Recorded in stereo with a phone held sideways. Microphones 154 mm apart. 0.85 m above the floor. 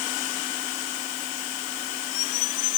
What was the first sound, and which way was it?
Only background noise.